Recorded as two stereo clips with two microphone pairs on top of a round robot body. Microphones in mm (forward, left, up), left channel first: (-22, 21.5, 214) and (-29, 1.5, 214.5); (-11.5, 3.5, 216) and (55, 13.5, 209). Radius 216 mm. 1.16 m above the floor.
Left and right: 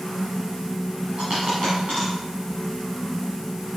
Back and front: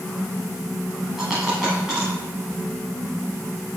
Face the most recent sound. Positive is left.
turn(degrees=-80)